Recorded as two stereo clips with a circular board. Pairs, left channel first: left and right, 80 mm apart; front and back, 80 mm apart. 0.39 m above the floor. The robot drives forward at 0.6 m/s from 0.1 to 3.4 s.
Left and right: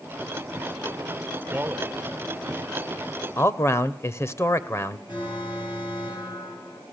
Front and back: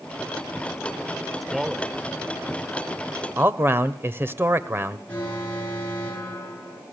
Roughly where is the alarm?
Left.